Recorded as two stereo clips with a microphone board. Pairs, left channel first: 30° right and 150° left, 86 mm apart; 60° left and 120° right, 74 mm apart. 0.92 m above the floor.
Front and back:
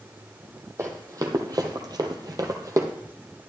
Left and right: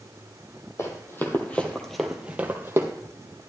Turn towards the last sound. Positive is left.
turn(degrees=-165)